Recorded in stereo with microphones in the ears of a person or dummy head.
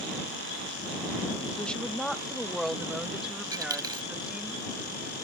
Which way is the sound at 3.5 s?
20° right (ahead or behind).